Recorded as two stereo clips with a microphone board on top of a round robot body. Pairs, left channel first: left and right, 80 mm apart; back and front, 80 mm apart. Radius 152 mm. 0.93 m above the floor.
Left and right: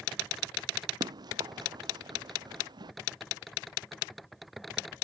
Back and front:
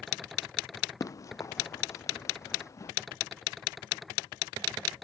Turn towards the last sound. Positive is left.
turn(degrees=-125)